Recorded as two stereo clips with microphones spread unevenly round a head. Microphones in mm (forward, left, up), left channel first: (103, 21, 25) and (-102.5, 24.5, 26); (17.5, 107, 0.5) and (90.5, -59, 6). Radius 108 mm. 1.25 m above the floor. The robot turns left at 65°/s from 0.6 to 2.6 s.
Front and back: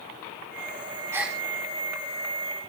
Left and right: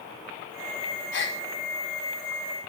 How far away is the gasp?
About 4 m.